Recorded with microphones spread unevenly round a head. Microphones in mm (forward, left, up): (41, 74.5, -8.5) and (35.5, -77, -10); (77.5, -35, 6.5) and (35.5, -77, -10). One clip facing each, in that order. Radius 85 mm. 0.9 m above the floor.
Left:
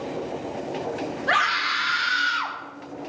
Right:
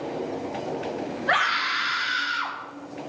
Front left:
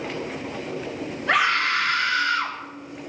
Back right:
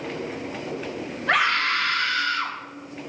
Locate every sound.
1.3 s a scream: 145° left, 2.5 m; by 2.6 s 110° left, 3.5 m